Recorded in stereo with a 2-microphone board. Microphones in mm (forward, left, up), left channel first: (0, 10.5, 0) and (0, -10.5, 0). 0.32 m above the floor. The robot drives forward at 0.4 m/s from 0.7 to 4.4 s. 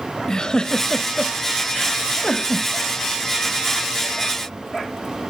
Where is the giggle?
40° left (ahead or behind), 0.8 m; by 2.7 s 20° left (ahead or behind), 1.3 m.